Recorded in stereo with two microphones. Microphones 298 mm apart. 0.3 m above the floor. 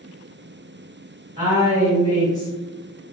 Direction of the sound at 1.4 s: 25° right (ahead or behind).